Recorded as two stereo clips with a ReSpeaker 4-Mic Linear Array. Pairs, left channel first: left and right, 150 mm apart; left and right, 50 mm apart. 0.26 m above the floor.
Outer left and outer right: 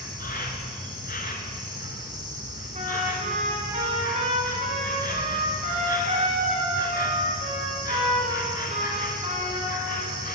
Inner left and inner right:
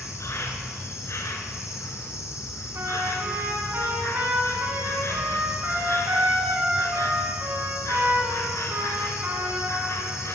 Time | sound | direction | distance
0.0 | an insect | 80° left | 1.0 m
2.7 | a trumpet | 55° right (ahead or behind) | 1.7 m